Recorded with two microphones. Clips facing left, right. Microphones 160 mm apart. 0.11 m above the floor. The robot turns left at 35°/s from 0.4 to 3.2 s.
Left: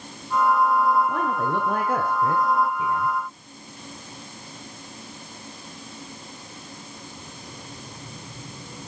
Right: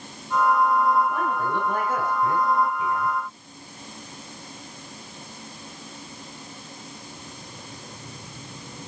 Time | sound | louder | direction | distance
1.1 | a man speaking | left 1 dB | 95° left | 6.5 m